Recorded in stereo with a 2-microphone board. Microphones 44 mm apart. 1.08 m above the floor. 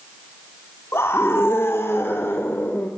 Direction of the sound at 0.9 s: 85° left.